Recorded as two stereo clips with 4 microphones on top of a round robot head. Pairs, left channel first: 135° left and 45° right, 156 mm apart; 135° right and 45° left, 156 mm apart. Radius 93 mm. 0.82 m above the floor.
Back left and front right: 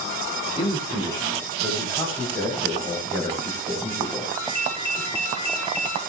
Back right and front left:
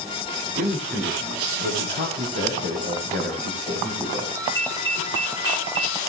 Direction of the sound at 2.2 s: 65° left.